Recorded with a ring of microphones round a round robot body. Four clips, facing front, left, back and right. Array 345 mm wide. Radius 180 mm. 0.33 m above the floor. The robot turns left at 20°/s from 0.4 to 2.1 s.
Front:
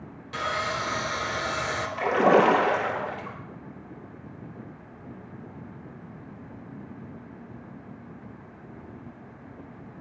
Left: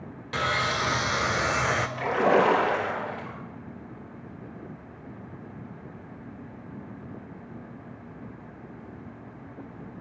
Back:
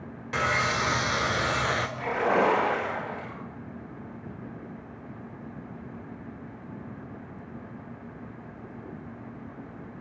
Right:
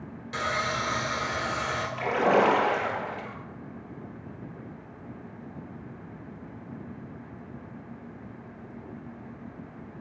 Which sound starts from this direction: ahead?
A splash, at 2.0 s.